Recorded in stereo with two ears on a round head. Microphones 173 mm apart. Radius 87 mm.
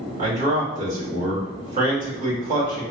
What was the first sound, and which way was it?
A man speaking, 40° right (ahead or behind).